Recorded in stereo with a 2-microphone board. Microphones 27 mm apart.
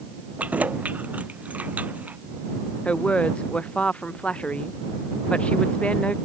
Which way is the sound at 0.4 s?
70° right (ahead or behind).